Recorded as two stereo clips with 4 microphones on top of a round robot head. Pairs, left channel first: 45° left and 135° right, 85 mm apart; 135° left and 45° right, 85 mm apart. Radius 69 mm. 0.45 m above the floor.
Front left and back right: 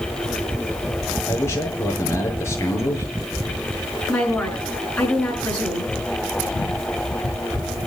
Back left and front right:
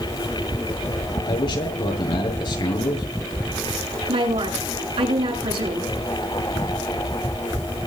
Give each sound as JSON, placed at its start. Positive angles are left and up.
{"t": 1.3, "sound": "a man speaking", "azimuth_deg": 105, "distance_m": 7.5}
{"t": 4.1, "sound": "a woman speaking", "azimuth_deg": -35, "distance_m": 7.5}